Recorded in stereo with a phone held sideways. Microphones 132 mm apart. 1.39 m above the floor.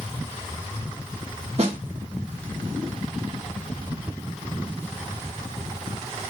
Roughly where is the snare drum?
Right.